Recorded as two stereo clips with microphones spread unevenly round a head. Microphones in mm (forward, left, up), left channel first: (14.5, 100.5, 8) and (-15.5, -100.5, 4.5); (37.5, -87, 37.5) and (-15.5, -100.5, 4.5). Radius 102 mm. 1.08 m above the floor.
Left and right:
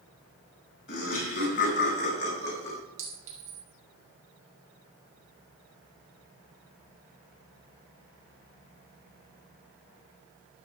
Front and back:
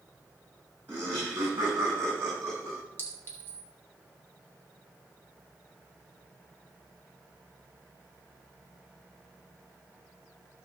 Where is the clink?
40° right, 3 m.